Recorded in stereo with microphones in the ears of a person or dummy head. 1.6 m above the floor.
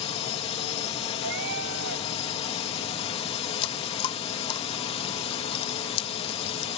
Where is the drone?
35° left (ahead or behind).